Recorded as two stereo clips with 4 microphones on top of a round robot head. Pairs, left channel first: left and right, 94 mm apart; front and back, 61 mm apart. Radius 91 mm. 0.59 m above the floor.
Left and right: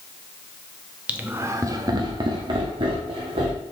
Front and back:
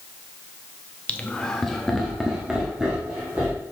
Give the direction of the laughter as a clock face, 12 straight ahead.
1 o'clock.